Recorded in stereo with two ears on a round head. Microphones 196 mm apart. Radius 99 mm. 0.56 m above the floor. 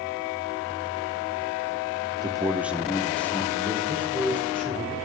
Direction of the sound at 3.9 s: 5° right (ahead or behind).